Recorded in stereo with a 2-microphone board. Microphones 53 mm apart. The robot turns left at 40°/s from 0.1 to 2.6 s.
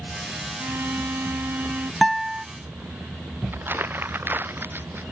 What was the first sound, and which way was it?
A violin, 70° right.